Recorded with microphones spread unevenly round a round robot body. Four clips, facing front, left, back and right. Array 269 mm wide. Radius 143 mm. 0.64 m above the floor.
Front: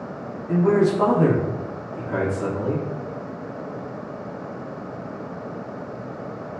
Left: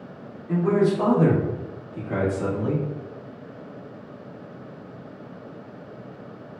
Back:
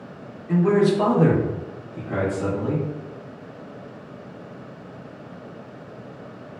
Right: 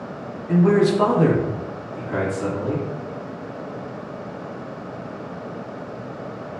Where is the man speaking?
85° right, 1.0 m; by 2.8 s 95° left, 1.3 m.